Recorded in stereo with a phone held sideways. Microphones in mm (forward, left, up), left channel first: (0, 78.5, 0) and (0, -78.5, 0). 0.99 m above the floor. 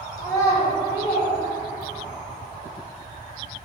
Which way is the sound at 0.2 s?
20° left (ahead or behind).